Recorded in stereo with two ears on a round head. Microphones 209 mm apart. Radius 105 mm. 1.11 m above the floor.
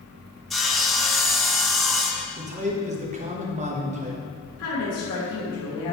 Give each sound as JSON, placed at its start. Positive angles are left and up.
{"t": 0.5, "sound": "sawing", "side_deg": 0, "distance_m": 0.8}
{"t": 2.4, "sound": "a man speaking", "side_deg": -30, "distance_m": 1.2}
{"t": 4.6, "sound": "a woman speaking", "side_deg": 70, "distance_m": 3.0}